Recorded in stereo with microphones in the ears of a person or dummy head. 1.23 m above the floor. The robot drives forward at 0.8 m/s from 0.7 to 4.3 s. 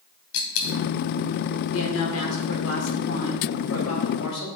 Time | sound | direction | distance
0.3 | a dropped coin | 75° left (ahead or behind) | 3.5 m
1.7 | a woman speaking | 80° left | 4.5 m